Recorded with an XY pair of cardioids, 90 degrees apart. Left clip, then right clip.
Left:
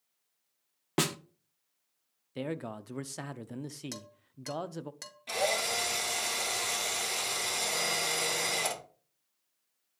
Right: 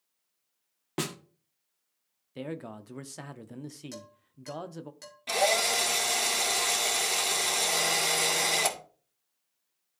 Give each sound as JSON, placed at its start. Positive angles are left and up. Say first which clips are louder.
{"t": 1.0, "sound": "a snare drum", "louder": "left 4 dB", "azimuth_deg": 35, "distance_m": 0.7}
{"t": 2.4, "sound": "a man speaking", "louder": "left 1 dB", "azimuth_deg": 15, "distance_m": 0.7}
{"t": 3.9, "sound": "dishes clattering", "louder": "even", "azimuth_deg": 50, "distance_m": 2.0}
{"t": 5.3, "sound": "a drill", "louder": "right 5 dB", "azimuth_deg": -50, "distance_m": 1.9}